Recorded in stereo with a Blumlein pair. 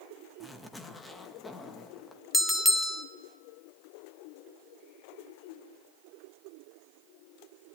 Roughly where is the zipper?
Ahead.